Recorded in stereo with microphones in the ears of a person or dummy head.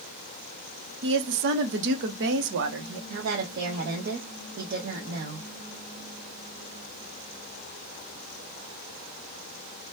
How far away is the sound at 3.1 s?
About 0.7 m.